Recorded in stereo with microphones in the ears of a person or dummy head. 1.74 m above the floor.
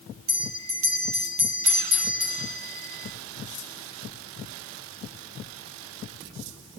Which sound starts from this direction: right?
A bell, at 0.3 s.